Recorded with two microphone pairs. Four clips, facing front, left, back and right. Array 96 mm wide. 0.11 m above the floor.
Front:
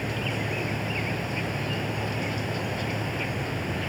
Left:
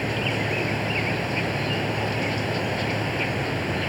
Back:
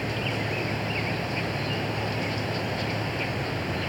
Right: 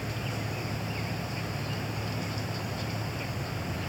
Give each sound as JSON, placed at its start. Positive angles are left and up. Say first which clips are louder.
{"t": 0.0, "sound": "an insect", "louder": "left 9 dB, back 1 dB", "azimuth_deg": 100}